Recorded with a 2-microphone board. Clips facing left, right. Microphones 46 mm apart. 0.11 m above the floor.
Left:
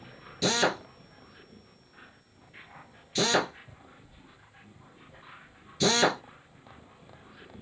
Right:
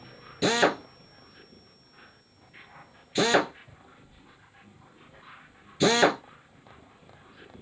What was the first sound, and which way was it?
A drill, 20° right (ahead or behind).